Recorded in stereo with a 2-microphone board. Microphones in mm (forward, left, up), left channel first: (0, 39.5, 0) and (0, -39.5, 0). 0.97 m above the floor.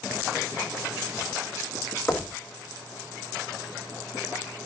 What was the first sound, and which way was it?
Knocking, 25° left (ahead or behind).